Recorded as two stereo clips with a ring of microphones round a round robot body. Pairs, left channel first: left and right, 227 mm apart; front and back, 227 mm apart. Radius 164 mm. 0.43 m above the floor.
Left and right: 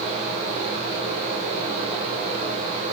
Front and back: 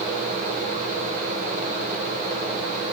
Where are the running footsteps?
I don't hear running footsteps.